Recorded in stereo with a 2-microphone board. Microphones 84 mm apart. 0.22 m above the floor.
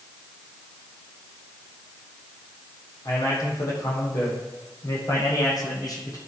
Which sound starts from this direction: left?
A man speaking, at 3.0 s.